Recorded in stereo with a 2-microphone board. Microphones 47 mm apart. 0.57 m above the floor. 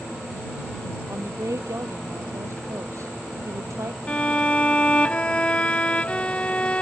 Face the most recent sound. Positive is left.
turn(degrees=25)  # may be behind; listen again after turning